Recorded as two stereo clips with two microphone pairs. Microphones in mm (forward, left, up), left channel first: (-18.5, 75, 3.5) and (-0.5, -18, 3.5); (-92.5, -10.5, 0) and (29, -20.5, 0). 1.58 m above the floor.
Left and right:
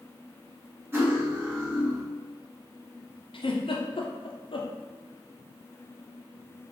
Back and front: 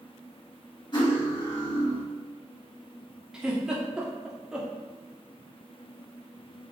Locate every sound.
0.9 s cutlery clinking: 145° right, 1.4 m
3.3 s a giggle: 80° left, 0.6 m